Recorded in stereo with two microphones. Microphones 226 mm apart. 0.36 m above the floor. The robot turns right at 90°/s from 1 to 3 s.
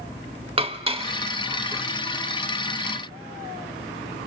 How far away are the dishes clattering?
About 0.7 m.